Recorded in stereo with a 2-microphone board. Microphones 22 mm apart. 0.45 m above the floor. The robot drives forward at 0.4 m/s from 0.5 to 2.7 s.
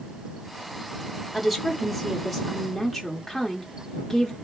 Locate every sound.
1.3 s a woman speaking: 5° right (ahead or behind), 0.7 m